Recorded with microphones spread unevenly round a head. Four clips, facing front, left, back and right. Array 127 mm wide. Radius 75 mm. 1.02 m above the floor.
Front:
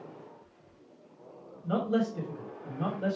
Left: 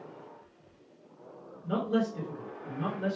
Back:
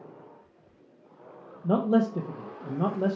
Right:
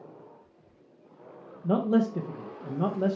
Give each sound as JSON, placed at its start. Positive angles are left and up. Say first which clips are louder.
{"t": 1.6, "sound": "a man speaking", "louder": "right 5 dB, back 5 dB", "azimuth_deg": -150, "distance_m": 1.0}